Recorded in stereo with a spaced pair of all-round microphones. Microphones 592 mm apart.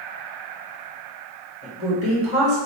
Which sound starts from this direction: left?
A woman speaking, at 1.6 s.